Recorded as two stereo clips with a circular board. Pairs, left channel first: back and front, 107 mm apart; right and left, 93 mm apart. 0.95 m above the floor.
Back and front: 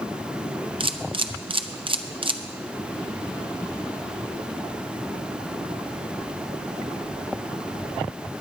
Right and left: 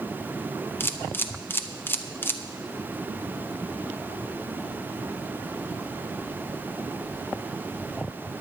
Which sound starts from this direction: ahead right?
A camera shutter, at 0.8 s.